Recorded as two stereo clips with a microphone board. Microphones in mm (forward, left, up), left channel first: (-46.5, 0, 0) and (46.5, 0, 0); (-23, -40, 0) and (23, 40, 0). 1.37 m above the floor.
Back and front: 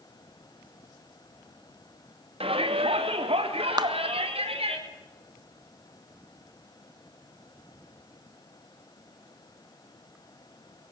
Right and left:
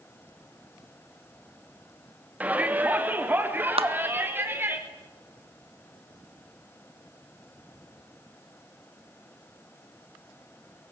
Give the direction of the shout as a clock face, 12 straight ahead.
1 o'clock.